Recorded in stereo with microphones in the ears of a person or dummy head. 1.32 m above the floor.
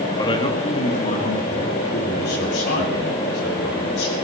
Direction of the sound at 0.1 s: 20° left (ahead or behind).